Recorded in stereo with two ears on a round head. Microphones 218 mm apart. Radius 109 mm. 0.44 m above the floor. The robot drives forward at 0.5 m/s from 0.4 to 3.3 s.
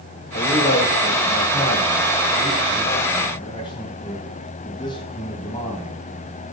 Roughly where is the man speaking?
Left.